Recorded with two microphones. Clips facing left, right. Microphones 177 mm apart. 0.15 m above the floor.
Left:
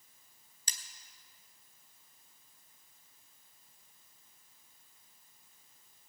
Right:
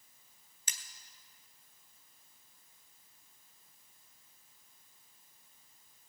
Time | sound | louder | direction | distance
0.7 | cutlery clinking | even | 40° left (ahead or behind) | 1.4 m